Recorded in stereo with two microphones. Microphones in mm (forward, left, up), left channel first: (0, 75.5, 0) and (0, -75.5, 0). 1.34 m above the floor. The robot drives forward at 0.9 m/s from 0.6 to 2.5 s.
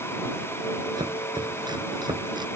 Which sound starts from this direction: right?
Chopping, at 1.0 s.